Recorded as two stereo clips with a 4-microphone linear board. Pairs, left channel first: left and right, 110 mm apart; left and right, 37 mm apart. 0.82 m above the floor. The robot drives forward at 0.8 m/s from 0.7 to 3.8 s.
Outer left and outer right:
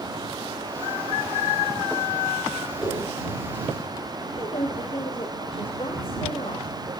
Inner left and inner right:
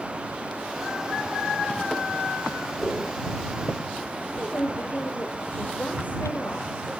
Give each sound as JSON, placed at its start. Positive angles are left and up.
{"t": 2.8, "sound": "a whoosh", "side_deg": -5, "distance_m": 8.5}
{"t": 4.3, "sound": "a woman speaking", "side_deg": 60, "distance_m": 4.0}